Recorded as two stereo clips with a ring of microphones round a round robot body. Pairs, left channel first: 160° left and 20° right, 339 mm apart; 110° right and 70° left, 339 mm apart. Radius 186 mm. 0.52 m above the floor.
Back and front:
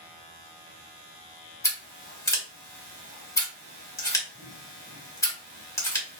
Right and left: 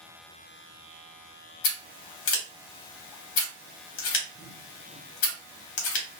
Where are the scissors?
120° right, 1.0 m.